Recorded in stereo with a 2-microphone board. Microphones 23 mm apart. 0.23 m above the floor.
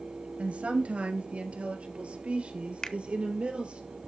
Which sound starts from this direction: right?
A woman speaking, at 0.4 s.